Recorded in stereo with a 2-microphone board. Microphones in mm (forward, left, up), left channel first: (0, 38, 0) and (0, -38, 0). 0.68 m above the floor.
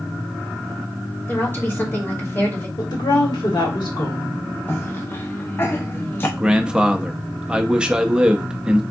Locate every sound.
1.3 s a woman speaking: 30° left (ahead or behind), 1.6 m
2.8 s a woman speaking: 75° left (ahead or behind), 1.9 m
4.7 s a cough: 30° left (ahead or behind), 0.7 m
6.4 s a man speaking: 10° right (ahead or behind), 0.5 m